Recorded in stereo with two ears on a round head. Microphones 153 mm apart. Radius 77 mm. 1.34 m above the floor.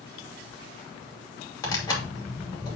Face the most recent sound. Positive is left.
turn(degrees=20)  # may be behind; listen again after turning